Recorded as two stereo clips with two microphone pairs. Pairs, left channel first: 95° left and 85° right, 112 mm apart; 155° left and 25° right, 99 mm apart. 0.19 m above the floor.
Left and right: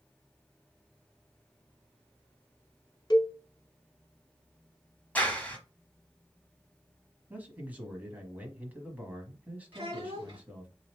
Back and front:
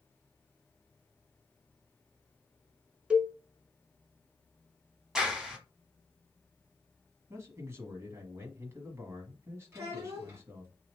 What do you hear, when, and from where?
3.1 s a cowbell: 50° left, 0.9 m
5.2 s a clap: 45° left, 1.1 m
7.3 s a man speaking: 30° right, 1.2 m
9.7 s a child speaking: 70° right, 1.4 m